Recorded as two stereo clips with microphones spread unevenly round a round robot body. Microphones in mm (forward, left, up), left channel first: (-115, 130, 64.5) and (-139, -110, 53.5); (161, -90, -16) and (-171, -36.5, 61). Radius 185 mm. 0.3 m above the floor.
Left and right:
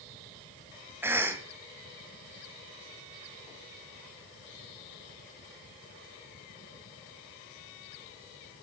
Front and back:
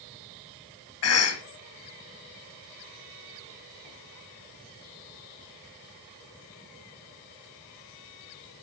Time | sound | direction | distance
1.0 | a cough | 15° right | 1.6 m